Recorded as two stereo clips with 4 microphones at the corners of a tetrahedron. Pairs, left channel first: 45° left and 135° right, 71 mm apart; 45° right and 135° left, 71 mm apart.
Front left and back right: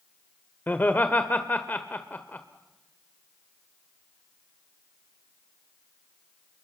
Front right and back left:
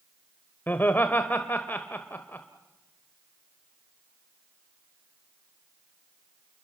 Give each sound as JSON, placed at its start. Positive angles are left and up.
{"t": 0.7, "sound": "laughter", "azimuth_deg": 0, "distance_m": 1.1}